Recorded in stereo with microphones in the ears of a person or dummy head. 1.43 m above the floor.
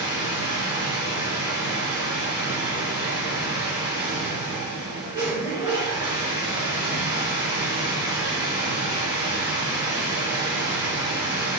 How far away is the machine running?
About 3 m.